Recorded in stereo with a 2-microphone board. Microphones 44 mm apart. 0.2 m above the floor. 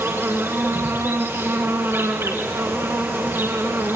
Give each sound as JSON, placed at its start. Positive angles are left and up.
{"t": 0.0, "sound": "an insect", "side_deg": -65, "distance_m": 6.0}